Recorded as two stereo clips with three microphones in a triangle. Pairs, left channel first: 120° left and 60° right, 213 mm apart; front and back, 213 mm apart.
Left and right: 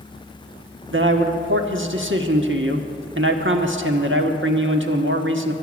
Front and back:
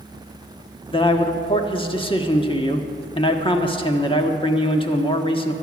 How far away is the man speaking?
About 1.3 m.